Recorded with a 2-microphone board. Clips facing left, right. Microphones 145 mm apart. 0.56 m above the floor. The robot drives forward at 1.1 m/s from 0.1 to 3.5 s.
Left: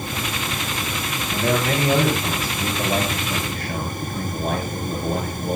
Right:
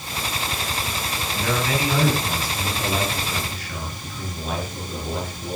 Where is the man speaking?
40° left (ahead or behind), 7.5 m; by 5.6 s 55° left (ahead or behind), 6 m.